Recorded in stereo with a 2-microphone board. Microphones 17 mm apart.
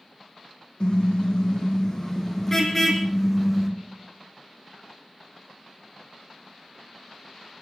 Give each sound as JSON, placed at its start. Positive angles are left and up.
{"t": 0.8, "sound": "a car horn", "side_deg": 50, "distance_m": 5.0}